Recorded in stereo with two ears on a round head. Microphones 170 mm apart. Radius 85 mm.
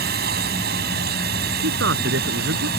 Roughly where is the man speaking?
Right.